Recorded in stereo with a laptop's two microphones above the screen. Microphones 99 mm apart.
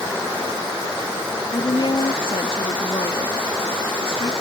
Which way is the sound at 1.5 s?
60° left (ahead or behind).